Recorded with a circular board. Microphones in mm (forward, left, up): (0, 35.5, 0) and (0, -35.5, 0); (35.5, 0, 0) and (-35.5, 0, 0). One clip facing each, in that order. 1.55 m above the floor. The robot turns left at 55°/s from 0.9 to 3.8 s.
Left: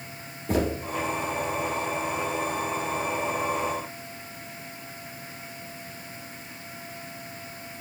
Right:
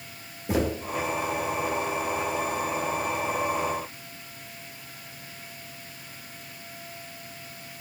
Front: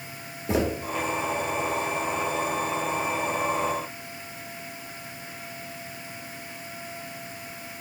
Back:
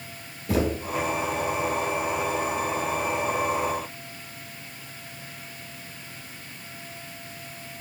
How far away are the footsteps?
About 1.6 m.